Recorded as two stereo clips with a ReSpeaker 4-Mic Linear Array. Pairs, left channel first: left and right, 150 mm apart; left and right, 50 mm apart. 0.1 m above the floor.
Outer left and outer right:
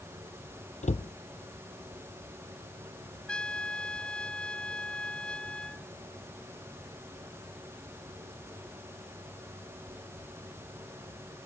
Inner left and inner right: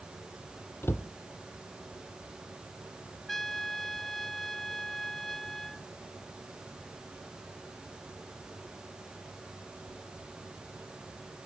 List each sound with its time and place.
0.8 s a cupboard door: 55° left (ahead or behind)
3.3 s a trumpet: 5° left (ahead or behind)